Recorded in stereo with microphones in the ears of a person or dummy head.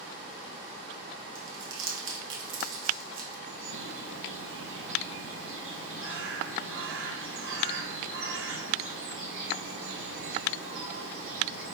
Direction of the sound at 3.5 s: 70° right (ahead or behind).